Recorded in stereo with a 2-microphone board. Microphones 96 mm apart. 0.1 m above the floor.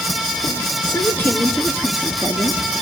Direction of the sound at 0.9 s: 35° left (ahead or behind).